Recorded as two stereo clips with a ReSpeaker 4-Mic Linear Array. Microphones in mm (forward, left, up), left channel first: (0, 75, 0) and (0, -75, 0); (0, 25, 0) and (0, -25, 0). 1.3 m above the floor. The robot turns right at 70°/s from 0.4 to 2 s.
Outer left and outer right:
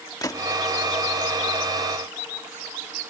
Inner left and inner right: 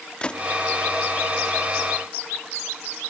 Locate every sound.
0.2 s a gunshot: 25° left (ahead or behind); by 0.5 s 30° left (ahead or behind)